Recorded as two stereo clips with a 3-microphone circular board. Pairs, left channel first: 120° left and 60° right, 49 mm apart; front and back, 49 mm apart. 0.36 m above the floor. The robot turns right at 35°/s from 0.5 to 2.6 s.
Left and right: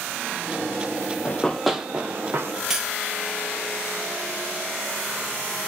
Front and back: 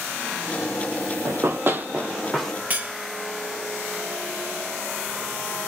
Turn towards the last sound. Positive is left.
turn(degrees=-135)